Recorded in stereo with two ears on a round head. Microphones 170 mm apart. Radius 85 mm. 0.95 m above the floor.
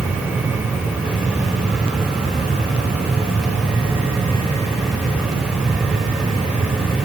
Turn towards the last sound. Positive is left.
No sound to turn to.